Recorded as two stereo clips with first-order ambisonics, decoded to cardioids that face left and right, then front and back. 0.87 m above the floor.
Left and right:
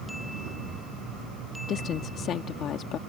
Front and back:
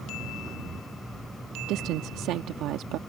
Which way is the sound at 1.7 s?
140° left.